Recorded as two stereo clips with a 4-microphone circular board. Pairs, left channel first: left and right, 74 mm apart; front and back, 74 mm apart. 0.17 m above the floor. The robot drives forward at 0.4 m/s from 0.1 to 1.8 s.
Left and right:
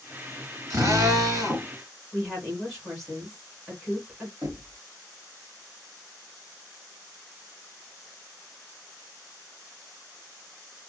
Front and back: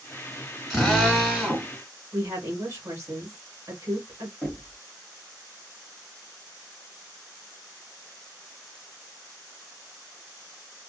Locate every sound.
0.7 s a drill: 90° right, 2 m; by 1.7 s 105° right, 2.5 m
2.1 s a woman speaking: straight behind, 1.9 m
4.4 s knocking: 110° right, 1.7 m